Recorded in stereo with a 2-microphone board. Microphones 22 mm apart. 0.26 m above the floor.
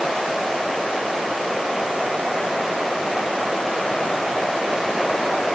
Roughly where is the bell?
No bell in this recording.